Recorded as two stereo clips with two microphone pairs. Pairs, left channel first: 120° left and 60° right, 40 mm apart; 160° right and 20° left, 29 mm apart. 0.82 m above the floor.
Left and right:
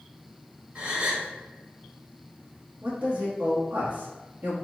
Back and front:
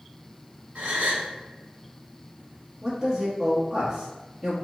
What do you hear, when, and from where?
0.8 s a gasp: 5° right, 1.1 m
2.8 s a man speaking: 55° right, 0.9 m